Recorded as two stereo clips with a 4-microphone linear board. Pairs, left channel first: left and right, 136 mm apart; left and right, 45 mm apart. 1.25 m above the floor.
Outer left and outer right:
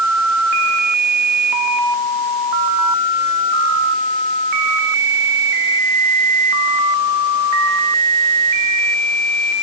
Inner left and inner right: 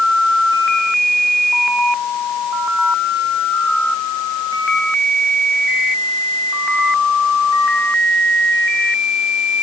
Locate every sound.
Only background noise.